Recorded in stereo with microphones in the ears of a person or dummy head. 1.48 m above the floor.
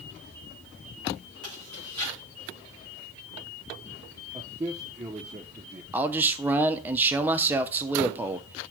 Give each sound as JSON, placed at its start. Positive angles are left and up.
{"t": 1.4, "sound": "chewing", "side_deg": -30, "distance_m": 5.0}
{"t": 4.3, "sound": "a man speaking", "side_deg": -20, "distance_m": 0.7}
{"t": 5.9, "sound": "a man speaking", "side_deg": -15, "distance_m": 0.6}